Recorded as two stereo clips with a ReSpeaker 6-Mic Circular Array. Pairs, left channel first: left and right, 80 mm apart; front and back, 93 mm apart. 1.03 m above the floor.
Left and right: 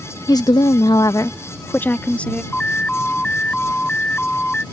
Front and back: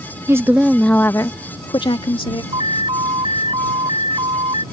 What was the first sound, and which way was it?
A woman speaking, 125° left.